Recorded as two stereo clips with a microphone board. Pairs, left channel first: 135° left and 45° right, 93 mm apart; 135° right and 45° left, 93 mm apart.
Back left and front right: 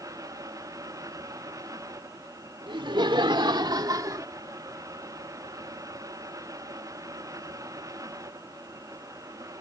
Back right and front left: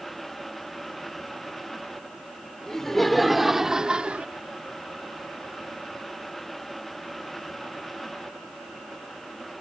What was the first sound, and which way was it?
Laughter, 50° right.